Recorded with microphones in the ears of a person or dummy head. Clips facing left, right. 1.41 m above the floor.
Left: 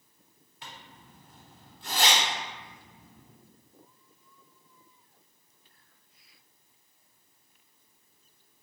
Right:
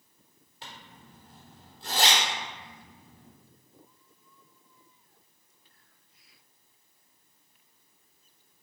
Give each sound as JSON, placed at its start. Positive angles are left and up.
{"t": 0.6, "sound": "a zipper", "side_deg": -25, "distance_m": 1.0}